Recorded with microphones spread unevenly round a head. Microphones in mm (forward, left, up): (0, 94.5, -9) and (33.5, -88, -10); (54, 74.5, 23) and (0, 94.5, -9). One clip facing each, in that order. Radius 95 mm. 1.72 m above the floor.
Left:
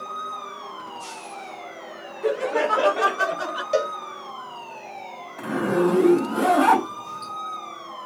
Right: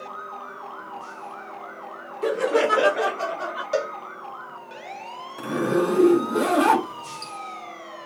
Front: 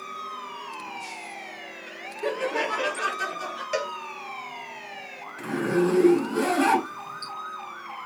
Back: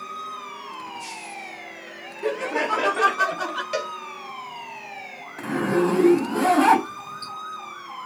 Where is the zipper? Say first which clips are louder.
Left 1 dB, back 2 dB; 125° right, 2 m.